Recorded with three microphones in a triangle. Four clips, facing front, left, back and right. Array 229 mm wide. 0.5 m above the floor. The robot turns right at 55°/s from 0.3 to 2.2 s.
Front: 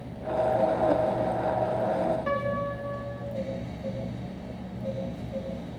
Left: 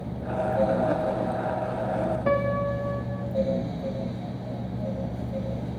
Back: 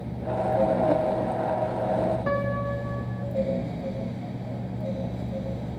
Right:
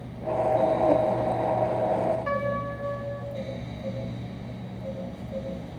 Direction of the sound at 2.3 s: 105° left.